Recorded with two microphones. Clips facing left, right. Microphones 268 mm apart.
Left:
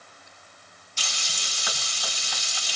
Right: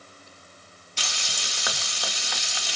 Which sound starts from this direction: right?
Frying, at 1.0 s.